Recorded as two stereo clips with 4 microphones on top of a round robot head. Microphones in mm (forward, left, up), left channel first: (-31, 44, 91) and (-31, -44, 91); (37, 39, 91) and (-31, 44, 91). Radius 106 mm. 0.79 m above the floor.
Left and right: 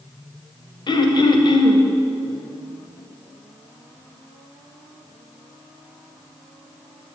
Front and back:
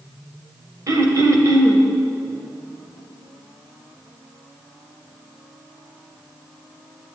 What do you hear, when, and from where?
0.9 s throat clearing: 130° left, 1.7 m